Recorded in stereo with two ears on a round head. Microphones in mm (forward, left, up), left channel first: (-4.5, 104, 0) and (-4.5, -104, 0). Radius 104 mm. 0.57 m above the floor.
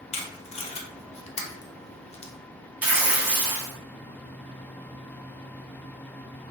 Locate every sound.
0.1 s tape being pulled: 25° left (ahead or behind), 0.6 m
2.8 s tearing paper: 5° right (ahead or behind), 0.8 m